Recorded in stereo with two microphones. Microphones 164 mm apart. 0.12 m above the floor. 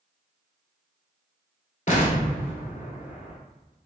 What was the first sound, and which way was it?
An explosion, 50° left (ahead or behind).